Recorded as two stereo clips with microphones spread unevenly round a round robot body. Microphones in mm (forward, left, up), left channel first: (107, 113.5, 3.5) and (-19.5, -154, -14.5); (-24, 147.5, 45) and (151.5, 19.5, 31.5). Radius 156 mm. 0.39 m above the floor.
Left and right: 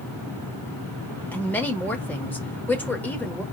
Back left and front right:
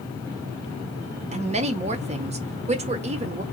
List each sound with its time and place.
1.3 s a woman speaking: 20° right, 1.0 m